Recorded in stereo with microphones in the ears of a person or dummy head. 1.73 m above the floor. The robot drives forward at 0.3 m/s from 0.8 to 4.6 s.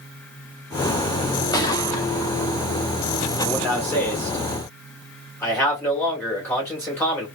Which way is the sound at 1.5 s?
25° left (ahead or behind).